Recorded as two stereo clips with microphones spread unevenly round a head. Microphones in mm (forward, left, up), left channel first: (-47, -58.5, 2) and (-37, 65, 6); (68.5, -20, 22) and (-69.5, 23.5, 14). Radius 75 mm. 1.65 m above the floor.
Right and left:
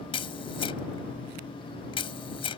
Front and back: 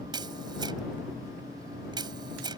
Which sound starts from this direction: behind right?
A camera shutter, at 0.1 s.